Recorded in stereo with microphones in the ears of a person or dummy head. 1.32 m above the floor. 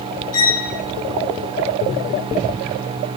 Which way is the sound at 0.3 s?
75° left (ahead or behind).